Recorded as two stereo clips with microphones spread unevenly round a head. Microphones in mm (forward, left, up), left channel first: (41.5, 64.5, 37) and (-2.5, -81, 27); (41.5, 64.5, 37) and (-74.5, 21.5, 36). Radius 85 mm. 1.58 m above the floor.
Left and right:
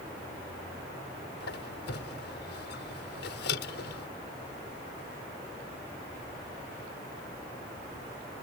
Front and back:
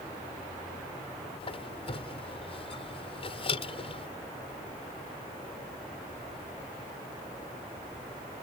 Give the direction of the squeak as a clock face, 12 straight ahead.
10 o'clock.